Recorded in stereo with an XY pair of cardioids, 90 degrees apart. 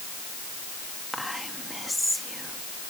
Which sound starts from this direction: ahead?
Whispering, at 1.1 s.